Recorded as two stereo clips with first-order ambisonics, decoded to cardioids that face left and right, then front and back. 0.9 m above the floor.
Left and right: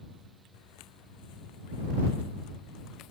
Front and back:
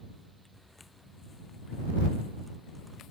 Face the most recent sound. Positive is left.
turn(degrees=45)